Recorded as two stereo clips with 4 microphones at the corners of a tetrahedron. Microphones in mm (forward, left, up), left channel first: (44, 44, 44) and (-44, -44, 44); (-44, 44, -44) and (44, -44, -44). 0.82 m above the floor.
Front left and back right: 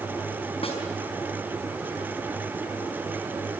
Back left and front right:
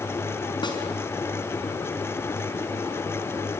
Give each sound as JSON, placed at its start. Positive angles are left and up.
{"t": 0.6, "sound": "a snare drum", "azimuth_deg": 85, "distance_m": 4.5}